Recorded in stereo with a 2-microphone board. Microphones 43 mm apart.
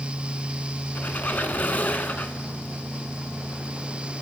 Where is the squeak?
40° left (ahead or behind), 0.6 m.